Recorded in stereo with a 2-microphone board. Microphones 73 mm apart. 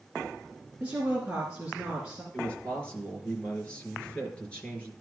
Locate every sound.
0.8 s a woman speaking: 15° right (ahead or behind), 2.5 m
2.3 s a man speaking: 15° left (ahead or behind), 4 m